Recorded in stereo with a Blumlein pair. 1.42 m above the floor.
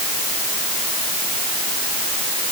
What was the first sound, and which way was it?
Only background noise.